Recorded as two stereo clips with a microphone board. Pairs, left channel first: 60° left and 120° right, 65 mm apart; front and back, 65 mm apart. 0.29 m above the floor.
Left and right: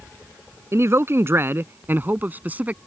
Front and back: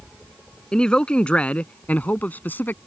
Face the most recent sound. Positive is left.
turn(degrees=-55)